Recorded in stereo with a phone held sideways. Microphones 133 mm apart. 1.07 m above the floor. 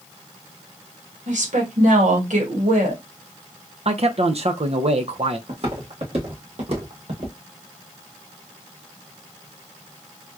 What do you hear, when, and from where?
1.3 s a woman speaking: 70° right (ahead or behind), 1.4 m
3.9 s a man speaking: 50° right (ahead or behind), 0.6 m
5.5 s footsteps: 50° right (ahead or behind), 1.7 m